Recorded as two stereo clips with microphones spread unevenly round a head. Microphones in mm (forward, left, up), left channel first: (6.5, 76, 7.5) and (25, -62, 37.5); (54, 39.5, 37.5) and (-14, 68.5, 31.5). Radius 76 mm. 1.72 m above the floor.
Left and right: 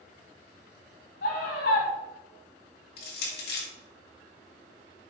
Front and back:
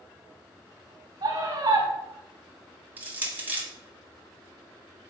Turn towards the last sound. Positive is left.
turn(degrees=90)